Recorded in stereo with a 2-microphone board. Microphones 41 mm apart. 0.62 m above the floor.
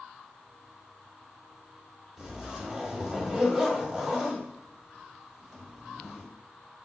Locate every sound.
2.2 s a zipper: 20° right (ahead or behind), 1.7 m